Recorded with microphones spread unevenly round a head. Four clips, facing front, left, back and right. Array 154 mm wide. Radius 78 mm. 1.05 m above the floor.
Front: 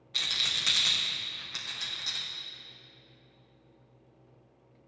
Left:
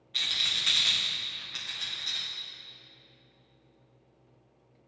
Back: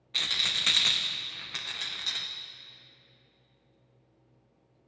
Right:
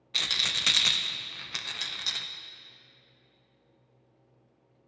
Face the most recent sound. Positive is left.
turn(degrees=-115)